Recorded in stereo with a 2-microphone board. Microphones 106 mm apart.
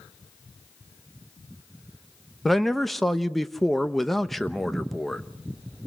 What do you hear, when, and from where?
2.5 s a man speaking: centre (ahead or behind), 0.8 m